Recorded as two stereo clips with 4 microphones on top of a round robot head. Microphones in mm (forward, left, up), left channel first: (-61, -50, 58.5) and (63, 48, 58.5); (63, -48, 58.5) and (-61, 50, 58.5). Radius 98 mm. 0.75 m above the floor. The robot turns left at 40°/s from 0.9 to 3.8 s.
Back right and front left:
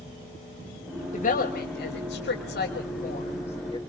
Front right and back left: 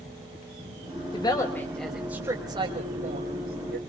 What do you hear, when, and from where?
1.1 s a woman speaking: 105° right, 3.5 m; by 3.8 s 150° left, 3.5 m